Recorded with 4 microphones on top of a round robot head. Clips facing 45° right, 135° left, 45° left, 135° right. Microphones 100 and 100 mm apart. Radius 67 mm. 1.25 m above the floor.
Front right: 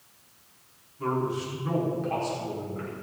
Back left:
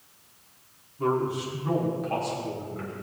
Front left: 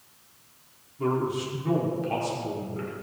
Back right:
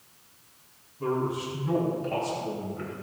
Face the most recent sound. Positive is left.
turn(degrees=40)